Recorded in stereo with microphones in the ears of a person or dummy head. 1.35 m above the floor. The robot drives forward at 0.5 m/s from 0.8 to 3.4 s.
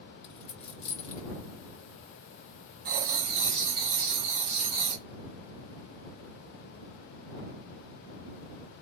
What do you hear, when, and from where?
0.2 s a dropped coin: 35° left (ahead or behind), 1.4 m; by 1.2 s 40° left (ahead or behind), 1.3 m
2.9 s writing: 45° right (ahead or behind), 0.5 m; by 5.0 s 30° right (ahead or behind), 0.6 m